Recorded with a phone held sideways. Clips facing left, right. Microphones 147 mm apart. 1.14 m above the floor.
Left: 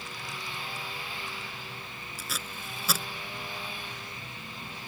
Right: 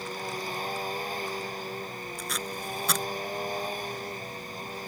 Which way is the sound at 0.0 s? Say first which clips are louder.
Right 7 dB; 45° right (ahead or behind).